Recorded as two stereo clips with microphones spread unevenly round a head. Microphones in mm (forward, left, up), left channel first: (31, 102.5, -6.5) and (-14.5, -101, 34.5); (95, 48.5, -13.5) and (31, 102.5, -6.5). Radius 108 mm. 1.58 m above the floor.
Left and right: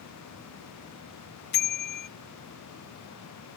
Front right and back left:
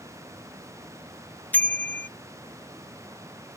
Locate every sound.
1.5 s a bicycle bell: 30° left